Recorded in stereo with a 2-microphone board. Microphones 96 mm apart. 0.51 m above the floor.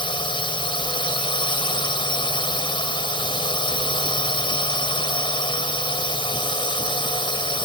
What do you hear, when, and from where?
0.0 s a drone: 60° left (ahead or behind)